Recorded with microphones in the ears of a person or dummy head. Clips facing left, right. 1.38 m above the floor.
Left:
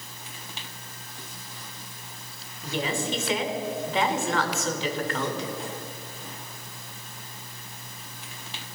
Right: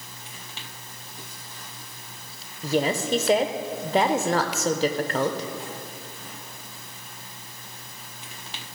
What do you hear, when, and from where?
2.6 s a woman speaking: 35° right (ahead or behind), 0.8 m